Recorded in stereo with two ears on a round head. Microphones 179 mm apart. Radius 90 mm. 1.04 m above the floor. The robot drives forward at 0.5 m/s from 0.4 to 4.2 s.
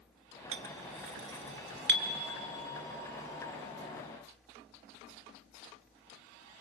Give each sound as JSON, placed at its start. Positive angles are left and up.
{"t": 0.5, "sound": "a clink", "side_deg": -75, "distance_m": 1.3}